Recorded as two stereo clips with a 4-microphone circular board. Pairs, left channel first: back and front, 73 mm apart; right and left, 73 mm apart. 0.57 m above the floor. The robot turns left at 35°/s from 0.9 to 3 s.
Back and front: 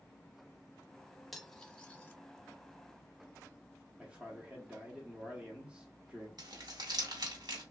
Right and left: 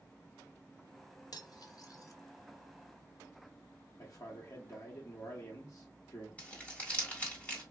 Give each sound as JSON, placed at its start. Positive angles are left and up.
{"t": 1.3, "sound": "cutlery clinking", "azimuth_deg": -90, "distance_m": 0.6}
{"t": 4.0, "sound": "a man speaking", "azimuth_deg": -70, "distance_m": 0.9}
{"t": 6.4, "sound": "crumpling", "azimuth_deg": -20, "distance_m": 1.4}